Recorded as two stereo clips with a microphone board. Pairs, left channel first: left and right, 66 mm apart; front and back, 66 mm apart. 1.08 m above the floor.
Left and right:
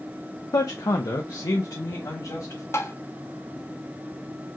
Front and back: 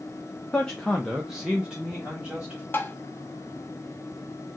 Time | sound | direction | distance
0.5 | a man speaking | 70° left | 0.5 m
2.7 | tapping | 50° left | 0.6 m